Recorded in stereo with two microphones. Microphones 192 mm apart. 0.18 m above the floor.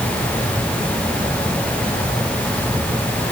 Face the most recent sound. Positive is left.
No sound to turn to.